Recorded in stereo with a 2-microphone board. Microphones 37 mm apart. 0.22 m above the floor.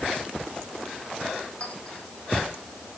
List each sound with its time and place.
1.6 s a clink: 35° left (ahead or behind), 7.5 m